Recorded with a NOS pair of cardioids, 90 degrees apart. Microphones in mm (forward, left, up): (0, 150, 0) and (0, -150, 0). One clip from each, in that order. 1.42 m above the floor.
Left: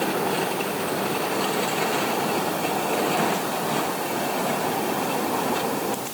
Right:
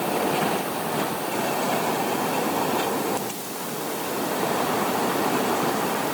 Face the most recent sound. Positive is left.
No sound to turn to.